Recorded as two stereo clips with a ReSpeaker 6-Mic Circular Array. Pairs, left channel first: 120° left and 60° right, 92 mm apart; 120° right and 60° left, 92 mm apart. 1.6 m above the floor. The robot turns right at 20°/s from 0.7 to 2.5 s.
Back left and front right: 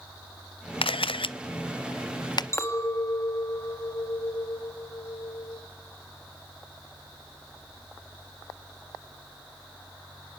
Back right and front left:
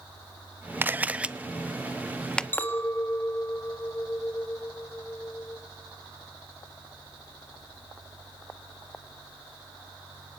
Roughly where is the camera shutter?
Behind left.